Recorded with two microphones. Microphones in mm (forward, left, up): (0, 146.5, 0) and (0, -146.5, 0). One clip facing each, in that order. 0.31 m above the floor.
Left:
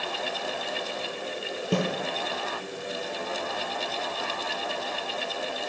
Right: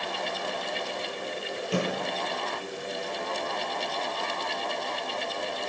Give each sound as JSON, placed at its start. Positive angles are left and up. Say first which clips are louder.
{"t": 1.7, "sound": "a snare drum", "louder": "left 2 dB", "side_deg": 45, "distance_m": 7.0}